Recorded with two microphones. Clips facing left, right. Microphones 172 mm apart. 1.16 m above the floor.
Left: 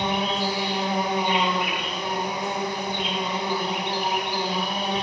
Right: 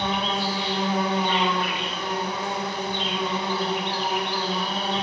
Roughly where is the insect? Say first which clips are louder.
Left 1 dB; centre.